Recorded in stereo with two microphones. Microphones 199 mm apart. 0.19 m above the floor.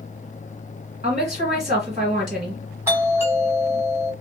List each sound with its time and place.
1.0 s a woman speaking: 35° right (ahead or behind), 1.7 m
2.9 s a doorbell: 10° right (ahead or behind), 2.0 m